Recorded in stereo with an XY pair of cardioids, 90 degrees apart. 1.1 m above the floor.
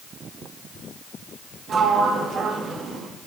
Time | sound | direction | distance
1.7 | a sliding door | 60° right | 1.0 m